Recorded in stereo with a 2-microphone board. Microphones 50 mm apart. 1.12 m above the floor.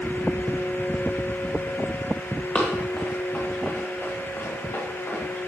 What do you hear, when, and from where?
2.5 s running footsteps: 25° left (ahead or behind), 3.5 m; by 5.2 s 60° left (ahead or behind), 5.5 m